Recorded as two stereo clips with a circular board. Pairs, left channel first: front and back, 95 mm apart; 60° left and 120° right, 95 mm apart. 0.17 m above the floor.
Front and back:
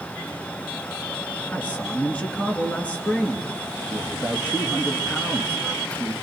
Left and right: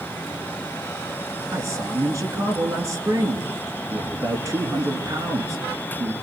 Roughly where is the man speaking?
Right.